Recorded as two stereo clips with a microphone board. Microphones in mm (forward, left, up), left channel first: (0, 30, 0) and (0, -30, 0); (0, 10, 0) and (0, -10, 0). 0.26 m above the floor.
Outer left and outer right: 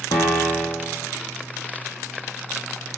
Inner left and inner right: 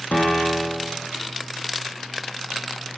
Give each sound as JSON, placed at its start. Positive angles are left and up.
{"t": 0.1, "sound": "a piano", "side_deg": 85, "distance_m": 3.5}